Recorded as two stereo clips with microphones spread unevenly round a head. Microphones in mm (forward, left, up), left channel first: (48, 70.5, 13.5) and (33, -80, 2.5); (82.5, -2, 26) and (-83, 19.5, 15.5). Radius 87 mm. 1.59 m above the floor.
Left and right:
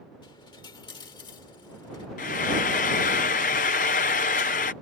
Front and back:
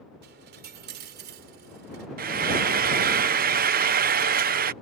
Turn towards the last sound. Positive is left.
turn(degrees=135)